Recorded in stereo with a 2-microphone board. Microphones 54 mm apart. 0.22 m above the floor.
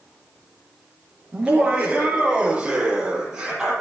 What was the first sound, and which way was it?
Laughter, 20° right (ahead or behind).